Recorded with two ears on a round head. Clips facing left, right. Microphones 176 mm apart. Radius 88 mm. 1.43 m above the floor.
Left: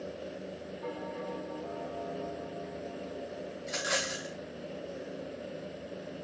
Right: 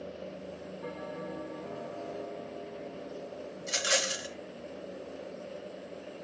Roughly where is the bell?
Centre.